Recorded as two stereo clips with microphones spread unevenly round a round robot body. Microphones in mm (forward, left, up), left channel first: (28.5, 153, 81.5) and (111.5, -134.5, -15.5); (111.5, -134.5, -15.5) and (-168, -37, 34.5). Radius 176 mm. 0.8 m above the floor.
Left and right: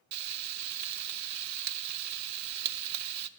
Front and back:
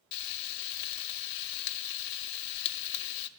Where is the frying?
30° right, 0.6 m.